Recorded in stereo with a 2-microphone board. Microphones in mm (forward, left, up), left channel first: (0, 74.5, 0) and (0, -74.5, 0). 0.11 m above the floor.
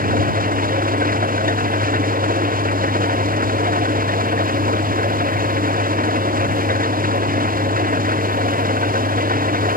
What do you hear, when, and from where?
0.0 s an engine running: 75° right (ahead or behind)